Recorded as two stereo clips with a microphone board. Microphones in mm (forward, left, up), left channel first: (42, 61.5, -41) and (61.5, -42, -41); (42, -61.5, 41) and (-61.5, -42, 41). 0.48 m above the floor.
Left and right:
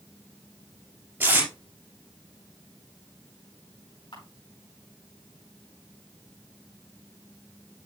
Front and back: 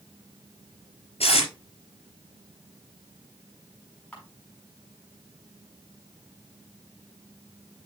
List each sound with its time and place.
1.2 s tape being pulled: 10° right, 4.5 m
4.1 s a camera shutter: 65° left, 5.5 m